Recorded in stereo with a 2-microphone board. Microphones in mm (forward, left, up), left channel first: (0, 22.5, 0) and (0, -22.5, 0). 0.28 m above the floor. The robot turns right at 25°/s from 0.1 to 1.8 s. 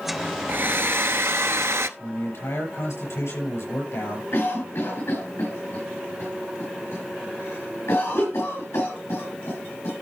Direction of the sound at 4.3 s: 70° left (ahead or behind).